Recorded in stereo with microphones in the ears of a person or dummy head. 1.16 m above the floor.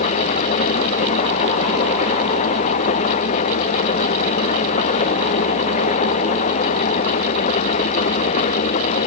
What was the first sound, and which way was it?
An engine running, 40° left (ahead or behind).